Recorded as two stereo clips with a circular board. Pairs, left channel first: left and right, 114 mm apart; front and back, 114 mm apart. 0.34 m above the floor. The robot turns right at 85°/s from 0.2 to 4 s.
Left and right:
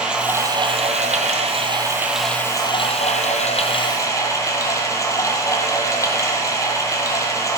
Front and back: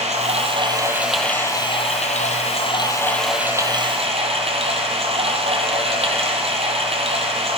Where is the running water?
170° right, 1.9 m; by 7.6 s 150° left, 1.9 m.